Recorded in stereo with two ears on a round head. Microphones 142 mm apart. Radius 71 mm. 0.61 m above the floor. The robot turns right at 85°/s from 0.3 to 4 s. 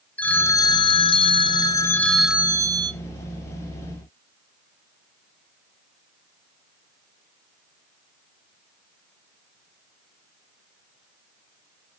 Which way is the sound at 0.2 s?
20° left.